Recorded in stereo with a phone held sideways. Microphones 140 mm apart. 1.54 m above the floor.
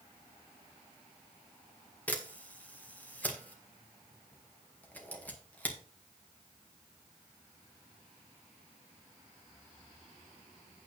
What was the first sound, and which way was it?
A camera shutter, 10° left (ahead or behind).